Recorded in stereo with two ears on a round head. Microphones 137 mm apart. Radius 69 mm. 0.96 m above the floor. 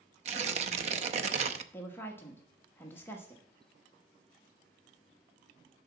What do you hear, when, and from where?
0.2 s tearing paper: 45° right (ahead or behind), 0.6 m
1.7 s a woman speaking: 15° left (ahead or behind), 1.1 m